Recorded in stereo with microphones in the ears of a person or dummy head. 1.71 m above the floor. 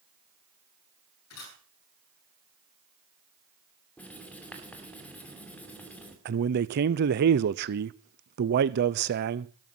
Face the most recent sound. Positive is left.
turn(degrees=-50)  # may be behind; listen again after turning